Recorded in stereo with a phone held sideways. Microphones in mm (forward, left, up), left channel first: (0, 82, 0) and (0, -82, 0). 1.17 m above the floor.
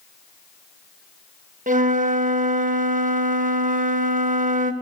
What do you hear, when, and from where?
1.7 s a flute: 60° right (ahead or behind), 0.6 m